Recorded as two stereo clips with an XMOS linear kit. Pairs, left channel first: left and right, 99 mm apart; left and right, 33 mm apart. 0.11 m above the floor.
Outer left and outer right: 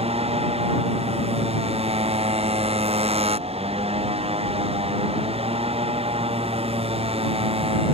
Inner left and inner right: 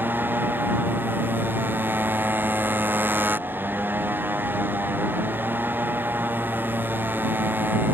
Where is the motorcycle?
85° right; by 7.9 s 75° right (ahead or behind).